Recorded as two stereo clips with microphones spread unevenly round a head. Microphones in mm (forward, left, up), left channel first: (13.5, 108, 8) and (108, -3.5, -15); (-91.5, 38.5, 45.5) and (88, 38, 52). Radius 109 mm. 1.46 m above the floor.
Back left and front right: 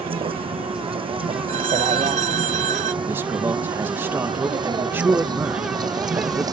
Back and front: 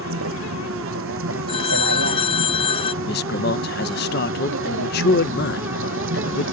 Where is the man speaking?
135° right.